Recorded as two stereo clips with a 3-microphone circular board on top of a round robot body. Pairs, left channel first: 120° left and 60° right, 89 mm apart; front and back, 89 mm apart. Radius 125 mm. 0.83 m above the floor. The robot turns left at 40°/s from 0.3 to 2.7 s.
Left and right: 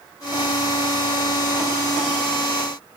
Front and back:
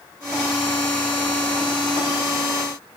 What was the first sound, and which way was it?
Only background noise.